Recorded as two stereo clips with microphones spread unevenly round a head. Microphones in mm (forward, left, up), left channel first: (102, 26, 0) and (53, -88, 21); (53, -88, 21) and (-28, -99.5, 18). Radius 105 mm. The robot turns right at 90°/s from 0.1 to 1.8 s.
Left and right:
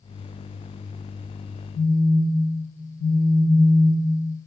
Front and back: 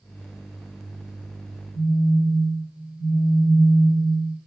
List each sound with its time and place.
1.7 s a phone buzzing: 155° left, 1.3 m; by 4.1 s 160° left, 1.3 m